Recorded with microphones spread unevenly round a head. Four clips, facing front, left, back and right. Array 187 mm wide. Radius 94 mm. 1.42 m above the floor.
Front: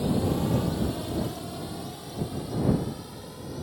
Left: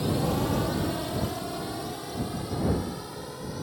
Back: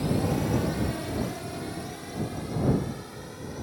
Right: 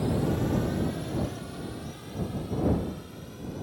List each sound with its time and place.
0.0 s a drone: 120° left; by 3.6 s 105° left